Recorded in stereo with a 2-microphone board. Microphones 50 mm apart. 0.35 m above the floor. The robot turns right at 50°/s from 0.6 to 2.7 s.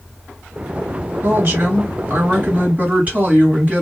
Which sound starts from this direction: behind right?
A woman speaking, at 1.2 s.